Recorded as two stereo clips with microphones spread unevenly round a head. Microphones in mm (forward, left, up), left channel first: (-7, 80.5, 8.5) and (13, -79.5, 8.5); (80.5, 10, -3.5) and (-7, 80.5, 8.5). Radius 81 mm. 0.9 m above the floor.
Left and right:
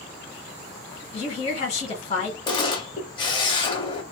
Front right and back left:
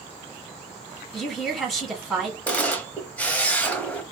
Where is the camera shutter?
40° left, 1.0 m.